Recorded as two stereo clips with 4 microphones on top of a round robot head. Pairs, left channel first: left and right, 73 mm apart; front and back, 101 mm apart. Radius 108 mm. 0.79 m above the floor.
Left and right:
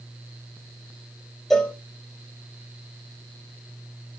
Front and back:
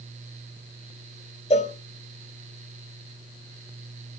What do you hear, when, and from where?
1.5 s a cowbell: 5° left, 0.7 m